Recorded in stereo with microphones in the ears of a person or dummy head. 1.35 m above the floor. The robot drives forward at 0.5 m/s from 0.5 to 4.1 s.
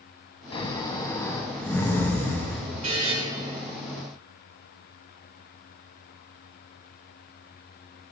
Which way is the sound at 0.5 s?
25° left (ahead or behind).